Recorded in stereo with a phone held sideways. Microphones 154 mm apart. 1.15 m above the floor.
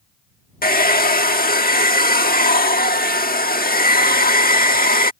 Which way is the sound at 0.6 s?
75° left (ahead or behind).